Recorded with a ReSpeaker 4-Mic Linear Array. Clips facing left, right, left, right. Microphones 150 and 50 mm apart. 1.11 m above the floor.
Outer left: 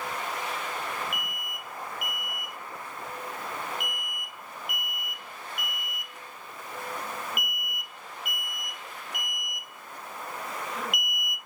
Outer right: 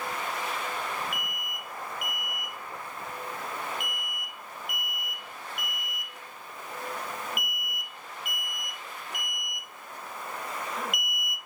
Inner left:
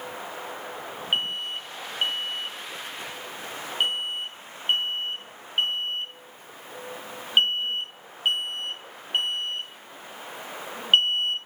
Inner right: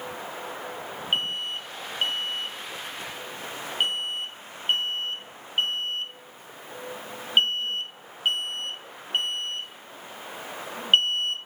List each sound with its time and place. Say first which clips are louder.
1.1 s an alarm: even, even; centre (ahead or behind), 0.9 m